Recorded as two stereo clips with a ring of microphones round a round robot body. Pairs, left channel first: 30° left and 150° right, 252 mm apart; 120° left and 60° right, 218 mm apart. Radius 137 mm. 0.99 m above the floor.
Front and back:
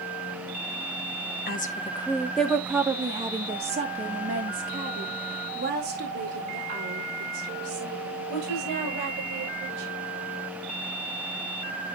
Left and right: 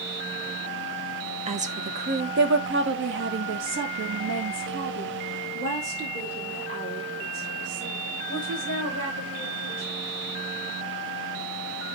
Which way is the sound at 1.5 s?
10° right.